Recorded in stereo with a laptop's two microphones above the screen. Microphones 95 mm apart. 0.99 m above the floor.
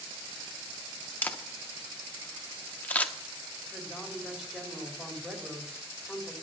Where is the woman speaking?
5° right (ahead or behind), 4 m.